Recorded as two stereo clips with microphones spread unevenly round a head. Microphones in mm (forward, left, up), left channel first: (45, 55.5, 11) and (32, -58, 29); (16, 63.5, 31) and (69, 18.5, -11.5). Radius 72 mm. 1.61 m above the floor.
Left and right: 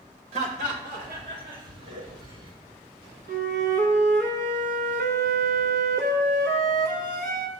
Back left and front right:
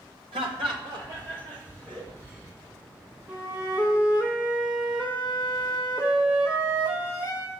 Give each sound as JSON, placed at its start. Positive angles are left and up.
{"t": 0.3, "sound": "laughter", "azimuth_deg": -85, "distance_m": 1.2}
{"t": 3.3, "sound": "a flute", "azimuth_deg": -130, "distance_m": 0.7}